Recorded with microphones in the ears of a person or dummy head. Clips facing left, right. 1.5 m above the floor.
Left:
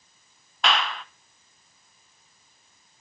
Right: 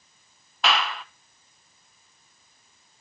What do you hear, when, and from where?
0.6 s a clap: 10° right (ahead or behind), 0.8 m